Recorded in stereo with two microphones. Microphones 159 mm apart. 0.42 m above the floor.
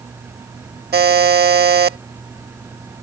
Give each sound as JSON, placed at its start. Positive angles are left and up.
{"t": 0.9, "sound": "a buzzer", "side_deg": -85}